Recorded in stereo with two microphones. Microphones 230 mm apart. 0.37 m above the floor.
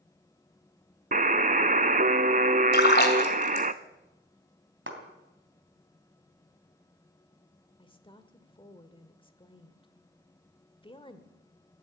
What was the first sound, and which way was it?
A buzzer, 35° right (ahead or behind).